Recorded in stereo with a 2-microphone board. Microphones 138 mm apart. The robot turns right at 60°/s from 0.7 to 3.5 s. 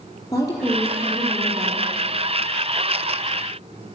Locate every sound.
0.3 s a woman speaking: 155° left, 5 m; by 1.9 s 130° right, 5 m